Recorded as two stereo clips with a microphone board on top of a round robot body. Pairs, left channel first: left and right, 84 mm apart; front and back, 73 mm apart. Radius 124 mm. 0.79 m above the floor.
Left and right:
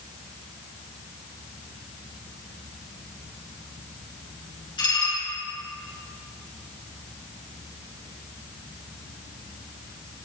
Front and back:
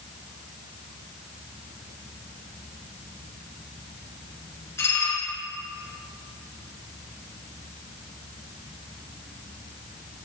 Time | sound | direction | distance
4.8 | dishes clattering | 55° left | 7.5 m